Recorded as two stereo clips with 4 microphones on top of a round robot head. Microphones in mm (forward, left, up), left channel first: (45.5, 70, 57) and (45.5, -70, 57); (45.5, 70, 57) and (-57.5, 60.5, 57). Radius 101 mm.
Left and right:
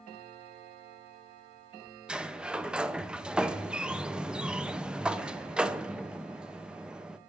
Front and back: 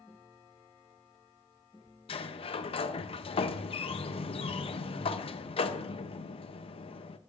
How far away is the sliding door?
About 0.5 m.